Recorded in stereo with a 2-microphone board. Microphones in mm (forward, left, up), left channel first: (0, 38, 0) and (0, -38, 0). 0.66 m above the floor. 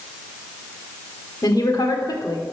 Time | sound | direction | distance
1.4 | a woman speaking | 55° left (ahead or behind) | 1.7 m